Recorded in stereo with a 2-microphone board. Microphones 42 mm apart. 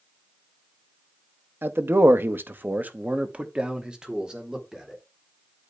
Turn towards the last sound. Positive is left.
turn(degrees=-10)  # may be behind; listen again after turning